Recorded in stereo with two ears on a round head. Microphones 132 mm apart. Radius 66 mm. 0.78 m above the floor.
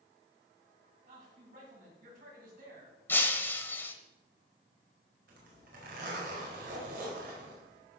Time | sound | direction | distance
1.1 | a man speaking | 55° right (ahead or behind) | 5.5 m
3.1 | breaking glass | 15° left (ahead or behind) | 1.1 m
5.3 | a zipper | 65° right (ahead or behind) | 4.5 m